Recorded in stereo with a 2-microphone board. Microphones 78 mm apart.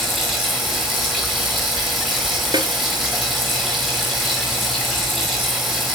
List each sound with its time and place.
0.0 s running water: 5° left (ahead or behind), 4.5 m
2.5 s a snare drum: 65° right (ahead or behind), 1.0 m